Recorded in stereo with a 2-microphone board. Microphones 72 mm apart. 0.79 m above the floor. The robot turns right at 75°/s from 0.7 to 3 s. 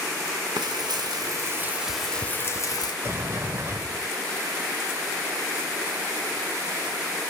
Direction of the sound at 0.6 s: 95° right.